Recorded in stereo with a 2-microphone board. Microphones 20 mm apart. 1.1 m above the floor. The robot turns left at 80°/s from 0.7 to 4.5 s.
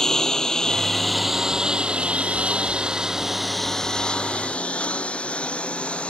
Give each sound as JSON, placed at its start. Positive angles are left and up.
{"t": 0.0, "sound": "a lawn mower", "side_deg": 25}